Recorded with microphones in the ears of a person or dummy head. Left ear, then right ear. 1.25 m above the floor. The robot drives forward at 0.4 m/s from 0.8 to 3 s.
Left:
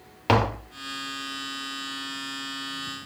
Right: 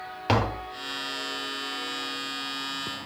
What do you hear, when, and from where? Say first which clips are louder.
0.3 s tapping: left 3 dB; 10° left (ahead or behind), 0.8 m